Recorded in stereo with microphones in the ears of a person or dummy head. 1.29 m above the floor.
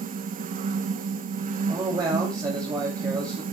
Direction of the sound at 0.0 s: 40° right (ahead or behind).